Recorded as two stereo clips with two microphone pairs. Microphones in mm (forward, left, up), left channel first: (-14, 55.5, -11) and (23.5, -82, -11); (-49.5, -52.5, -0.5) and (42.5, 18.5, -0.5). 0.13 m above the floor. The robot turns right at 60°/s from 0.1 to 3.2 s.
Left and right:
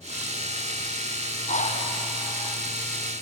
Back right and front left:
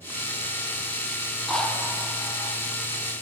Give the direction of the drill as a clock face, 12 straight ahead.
8 o'clock.